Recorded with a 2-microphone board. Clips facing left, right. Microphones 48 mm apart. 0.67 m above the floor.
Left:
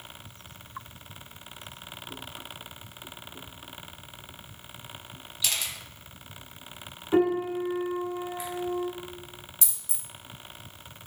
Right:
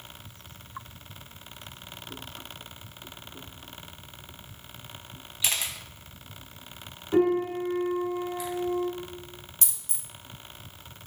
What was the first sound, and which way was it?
A camera shutter, 30° right (ahead or behind).